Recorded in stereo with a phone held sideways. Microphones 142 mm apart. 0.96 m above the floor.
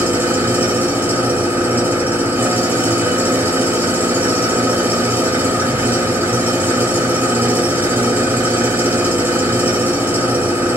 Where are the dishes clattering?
No dishes clattering in this recording.